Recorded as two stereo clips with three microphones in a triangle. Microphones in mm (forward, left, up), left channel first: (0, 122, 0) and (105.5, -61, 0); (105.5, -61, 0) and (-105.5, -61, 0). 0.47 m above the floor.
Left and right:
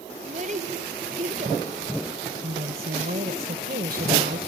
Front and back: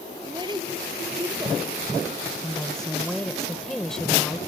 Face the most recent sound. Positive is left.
turn(degrees=-85)